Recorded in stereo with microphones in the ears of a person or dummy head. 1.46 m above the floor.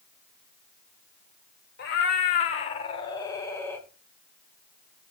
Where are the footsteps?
No footsteps in this recording.